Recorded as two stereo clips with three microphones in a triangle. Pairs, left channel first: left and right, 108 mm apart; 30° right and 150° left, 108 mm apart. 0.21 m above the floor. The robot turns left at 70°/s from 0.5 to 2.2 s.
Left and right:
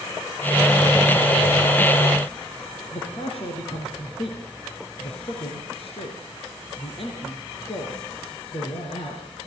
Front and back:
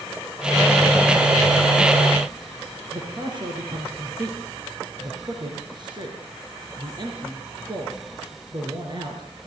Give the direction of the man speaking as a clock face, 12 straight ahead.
8 o'clock.